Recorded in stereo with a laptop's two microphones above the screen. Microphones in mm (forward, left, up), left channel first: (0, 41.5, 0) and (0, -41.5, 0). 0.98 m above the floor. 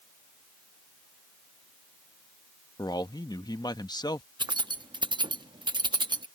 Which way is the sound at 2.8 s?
60° left (ahead or behind).